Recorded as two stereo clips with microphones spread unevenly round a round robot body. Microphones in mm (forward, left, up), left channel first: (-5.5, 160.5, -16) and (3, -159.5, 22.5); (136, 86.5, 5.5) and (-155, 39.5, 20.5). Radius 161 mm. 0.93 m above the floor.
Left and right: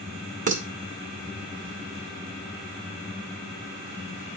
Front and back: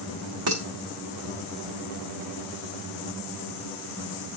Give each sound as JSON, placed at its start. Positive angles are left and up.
{"t": 0.5, "sound": "dishes clattering", "azimuth_deg": -155, "distance_m": 1.7}